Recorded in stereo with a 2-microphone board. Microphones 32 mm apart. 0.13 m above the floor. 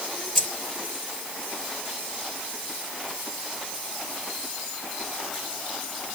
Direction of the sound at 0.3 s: 10° left (ahead or behind).